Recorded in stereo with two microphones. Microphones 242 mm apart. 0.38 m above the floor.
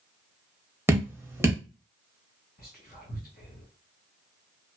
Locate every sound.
0.9 s dripping: 10° right (ahead or behind), 0.7 m
2.6 s whispering: 35° left (ahead or behind), 1.6 m